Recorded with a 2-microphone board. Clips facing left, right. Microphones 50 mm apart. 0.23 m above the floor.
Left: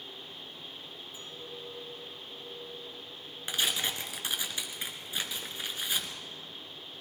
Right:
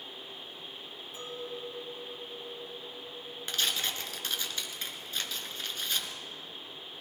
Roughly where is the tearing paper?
Centre.